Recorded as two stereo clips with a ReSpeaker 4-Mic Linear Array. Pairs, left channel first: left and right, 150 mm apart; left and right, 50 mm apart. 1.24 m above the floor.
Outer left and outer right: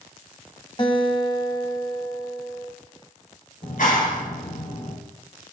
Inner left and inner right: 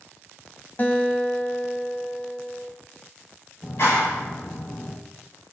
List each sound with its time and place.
0.8 s a guitar: 35° left (ahead or behind), 1.6 m
3.6 s a clap: 60° left (ahead or behind), 5 m